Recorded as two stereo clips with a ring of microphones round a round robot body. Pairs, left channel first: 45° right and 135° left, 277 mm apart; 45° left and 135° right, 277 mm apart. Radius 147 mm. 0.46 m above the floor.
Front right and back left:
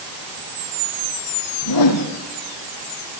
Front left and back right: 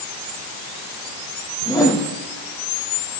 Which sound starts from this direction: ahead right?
A whoosh, at 1.6 s.